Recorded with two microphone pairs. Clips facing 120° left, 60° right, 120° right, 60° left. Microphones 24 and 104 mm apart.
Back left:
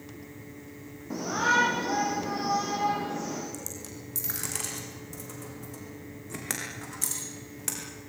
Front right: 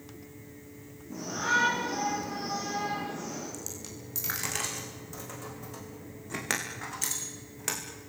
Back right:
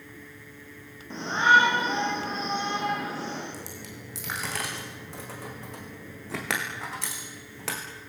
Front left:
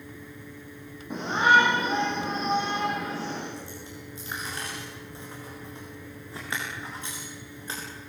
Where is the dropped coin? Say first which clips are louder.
Back left 1 dB, front left 1 dB; 130° right, 6 m.